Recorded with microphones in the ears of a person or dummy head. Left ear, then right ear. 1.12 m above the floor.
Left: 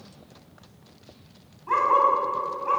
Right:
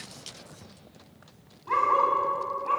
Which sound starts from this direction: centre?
A dog barking, at 1.7 s.